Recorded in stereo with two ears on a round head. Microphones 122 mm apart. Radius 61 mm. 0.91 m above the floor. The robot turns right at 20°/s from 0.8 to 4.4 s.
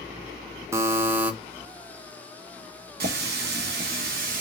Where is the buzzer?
20° right (ahead or behind), 0.5 m; by 1.3 s 10° right (ahead or behind), 0.5 m.